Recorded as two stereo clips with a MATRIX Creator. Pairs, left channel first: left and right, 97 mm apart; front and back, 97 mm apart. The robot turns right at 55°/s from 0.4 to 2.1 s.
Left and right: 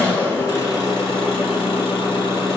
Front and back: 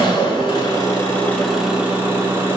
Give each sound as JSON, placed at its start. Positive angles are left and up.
{"t": 0.0, "sound": "an engine running", "azimuth_deg": 25, "distance_m": 0.9}